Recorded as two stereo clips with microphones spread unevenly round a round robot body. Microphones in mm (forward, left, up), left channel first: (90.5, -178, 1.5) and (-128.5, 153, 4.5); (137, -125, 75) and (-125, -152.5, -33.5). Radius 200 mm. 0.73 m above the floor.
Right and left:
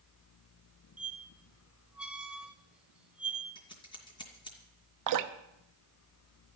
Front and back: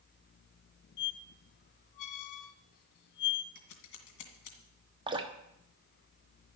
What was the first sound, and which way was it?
A squeak, 35° left.